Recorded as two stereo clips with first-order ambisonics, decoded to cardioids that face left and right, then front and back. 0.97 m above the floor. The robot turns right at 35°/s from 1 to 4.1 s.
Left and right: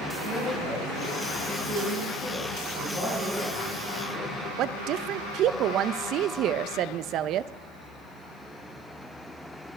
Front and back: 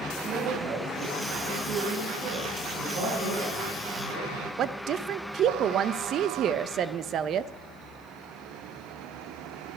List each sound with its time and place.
0.2 s a woman speaking: 140° left, 9 m; by 2.6 s 165° right, 9 m
2.7 s a man speaking: 140° left, 5.5 m; by 4.5 s 175° right, 5.5 m
4.6 s a woman speaking: 130° right, 0.6 m